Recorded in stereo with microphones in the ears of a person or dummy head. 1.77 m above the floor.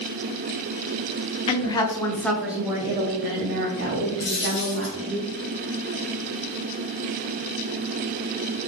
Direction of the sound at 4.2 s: 30° left (ahead or behind).